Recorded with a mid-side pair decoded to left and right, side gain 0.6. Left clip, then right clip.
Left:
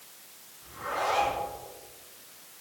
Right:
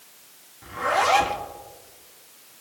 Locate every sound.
0.6 s a zipper: 60° right, 2 m